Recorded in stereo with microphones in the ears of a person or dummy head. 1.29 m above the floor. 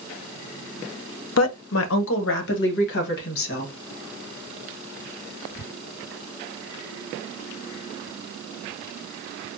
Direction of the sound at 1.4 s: 75° left (ahead or behind).